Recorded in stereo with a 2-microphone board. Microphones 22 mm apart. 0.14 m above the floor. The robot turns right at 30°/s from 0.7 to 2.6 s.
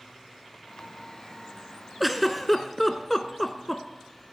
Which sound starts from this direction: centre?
A giggle, at 2.0 s.